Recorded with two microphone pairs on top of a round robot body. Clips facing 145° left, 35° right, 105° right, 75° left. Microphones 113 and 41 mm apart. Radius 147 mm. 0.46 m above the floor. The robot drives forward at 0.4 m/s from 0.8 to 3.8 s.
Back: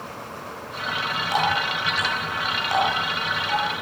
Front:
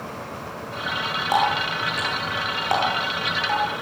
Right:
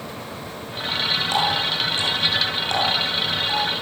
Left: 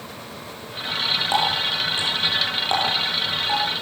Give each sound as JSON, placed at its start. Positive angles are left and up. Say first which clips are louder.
{"t": 1.3, "sound": "a running tap", "louder": "front 2 dB, even", "azimuth_deg": 5, "distance_m": 7.5}